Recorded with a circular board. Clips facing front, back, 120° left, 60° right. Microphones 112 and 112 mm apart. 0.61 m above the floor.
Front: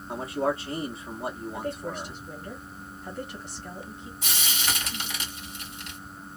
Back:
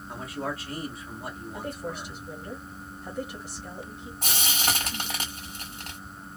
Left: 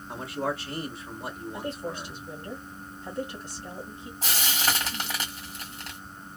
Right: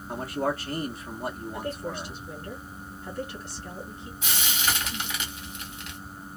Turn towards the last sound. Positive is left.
turn(degrees=165)